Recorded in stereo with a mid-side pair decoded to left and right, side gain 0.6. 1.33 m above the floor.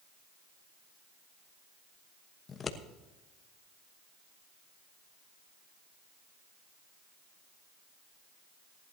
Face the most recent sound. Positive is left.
turn(degrees=35)